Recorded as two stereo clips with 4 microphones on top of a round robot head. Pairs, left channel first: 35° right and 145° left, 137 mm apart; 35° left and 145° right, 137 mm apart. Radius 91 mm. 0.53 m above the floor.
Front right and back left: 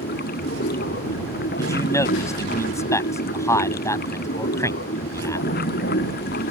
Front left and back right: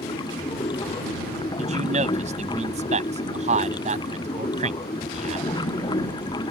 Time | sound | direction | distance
0.0 | running water | 25° right | ?
1.6 | a man speaking | 105° right | ?